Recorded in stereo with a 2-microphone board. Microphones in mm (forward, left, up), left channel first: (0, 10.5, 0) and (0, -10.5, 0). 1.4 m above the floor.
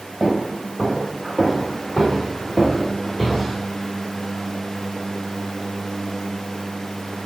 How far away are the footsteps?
About 1.6 m.